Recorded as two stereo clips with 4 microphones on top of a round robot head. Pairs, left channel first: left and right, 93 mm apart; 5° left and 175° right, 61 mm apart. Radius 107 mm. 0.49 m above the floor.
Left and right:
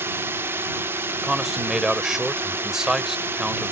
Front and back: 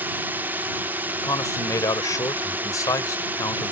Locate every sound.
0.0 s a drone: 140° right
1.2 s a man speaking: 5° right